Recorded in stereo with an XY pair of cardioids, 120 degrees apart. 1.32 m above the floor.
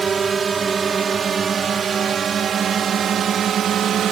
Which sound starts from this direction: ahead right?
A drone, at 0.0 s.